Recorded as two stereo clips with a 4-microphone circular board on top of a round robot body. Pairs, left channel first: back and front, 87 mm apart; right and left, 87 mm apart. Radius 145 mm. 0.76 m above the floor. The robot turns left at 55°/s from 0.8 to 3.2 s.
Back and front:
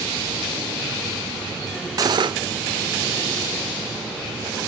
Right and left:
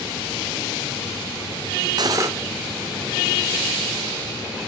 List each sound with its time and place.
2.0 s cutlery clinking: 50° left, 1.8 m; by 2.3 s 30° left, 1.8 m